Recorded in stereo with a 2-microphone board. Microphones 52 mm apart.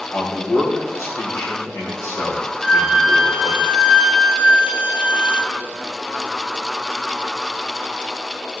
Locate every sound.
0.1 s a man speaking: 70° left (ahead or behind), 3.5 m
2.6 s a flute: 15° right (ahead or behind), 1.3 m